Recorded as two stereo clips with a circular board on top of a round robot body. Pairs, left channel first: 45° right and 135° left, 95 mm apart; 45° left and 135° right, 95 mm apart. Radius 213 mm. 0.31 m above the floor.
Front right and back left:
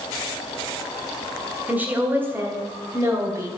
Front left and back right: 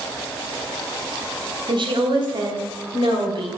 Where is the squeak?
No squeak in this recording.